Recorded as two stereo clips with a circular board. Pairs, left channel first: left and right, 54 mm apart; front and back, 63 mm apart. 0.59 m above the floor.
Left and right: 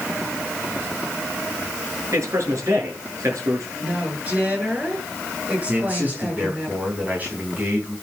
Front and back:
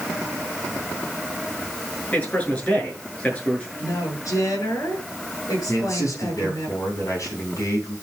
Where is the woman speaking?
25° right, 7 m.